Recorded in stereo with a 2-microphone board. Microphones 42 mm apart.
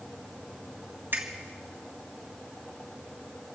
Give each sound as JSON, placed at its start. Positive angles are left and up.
{"t": 1.1, "sound": "a finger snap", "side_deg": -55, "distance_m": 3.0}